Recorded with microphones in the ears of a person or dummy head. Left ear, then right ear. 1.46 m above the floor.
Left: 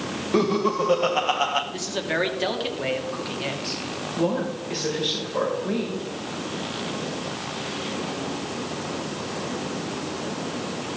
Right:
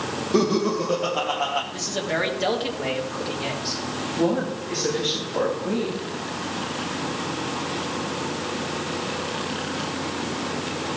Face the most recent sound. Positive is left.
turn(degrees=40)  # may be behind; listen again after turning